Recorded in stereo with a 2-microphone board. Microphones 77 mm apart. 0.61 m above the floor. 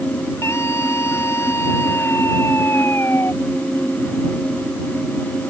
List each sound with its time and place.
0.4 s a scream: 35° left (ahead or behind); by 3.3 s 30° left (ahead or behind)